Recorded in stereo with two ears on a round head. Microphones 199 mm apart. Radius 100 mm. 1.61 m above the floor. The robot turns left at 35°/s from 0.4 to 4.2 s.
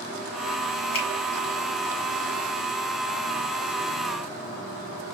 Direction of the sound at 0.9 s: 65° left (ahead or behind).